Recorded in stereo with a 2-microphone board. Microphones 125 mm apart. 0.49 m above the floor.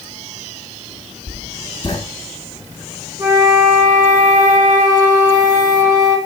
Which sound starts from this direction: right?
A flute, at 3.2 s.